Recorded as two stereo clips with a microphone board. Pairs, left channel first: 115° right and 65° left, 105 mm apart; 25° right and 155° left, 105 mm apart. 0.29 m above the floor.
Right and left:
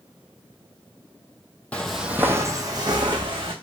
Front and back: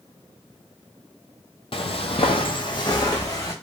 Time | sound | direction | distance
1.7 | footsteps | 40° right | 0.5 m